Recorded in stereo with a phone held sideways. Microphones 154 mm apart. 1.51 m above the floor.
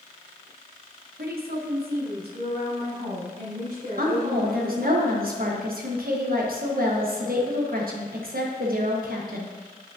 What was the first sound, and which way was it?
A woman speaking, 85° right.